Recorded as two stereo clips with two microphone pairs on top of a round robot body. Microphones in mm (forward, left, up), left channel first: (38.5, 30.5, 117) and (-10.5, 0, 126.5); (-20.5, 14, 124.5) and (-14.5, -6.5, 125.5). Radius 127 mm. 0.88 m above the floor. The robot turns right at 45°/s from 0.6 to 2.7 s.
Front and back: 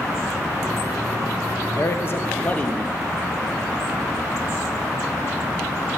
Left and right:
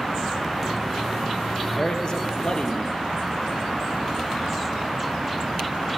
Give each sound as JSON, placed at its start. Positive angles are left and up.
{"t": 1.8, "sound": "a man speaking", "azimuth_deg": 50, "distance_m": 1.4}